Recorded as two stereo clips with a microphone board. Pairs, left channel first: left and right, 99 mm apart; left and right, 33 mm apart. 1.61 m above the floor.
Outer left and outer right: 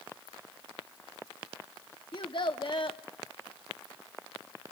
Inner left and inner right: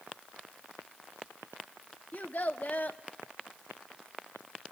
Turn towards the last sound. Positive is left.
turn(degrees=50)  # may be behind; listen again after turning